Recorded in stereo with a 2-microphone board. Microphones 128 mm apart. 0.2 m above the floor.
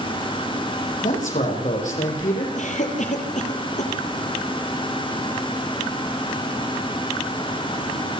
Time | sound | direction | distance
1.0 | a man speaking | 80° left | 8.5 m
2.6 | a cough | 70° left (ahead or behind) | 5.5 m